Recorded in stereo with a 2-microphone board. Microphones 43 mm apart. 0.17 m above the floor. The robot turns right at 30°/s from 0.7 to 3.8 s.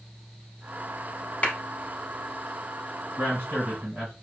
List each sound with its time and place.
1.4 s a clap: 30° left (ahead or behind), 0.9 m
3.2 s a man speaking: 35° right (ahead or behind), 2.0 m